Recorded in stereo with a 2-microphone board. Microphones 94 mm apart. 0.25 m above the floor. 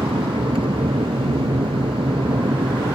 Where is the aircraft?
70° right (ahead or behind).